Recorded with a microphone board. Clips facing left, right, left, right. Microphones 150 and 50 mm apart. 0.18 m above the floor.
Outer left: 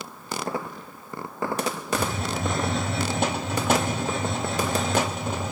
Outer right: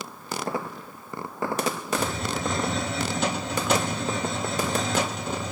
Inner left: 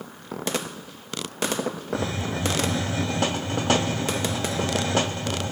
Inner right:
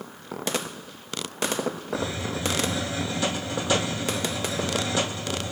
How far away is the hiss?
About 2.5 m.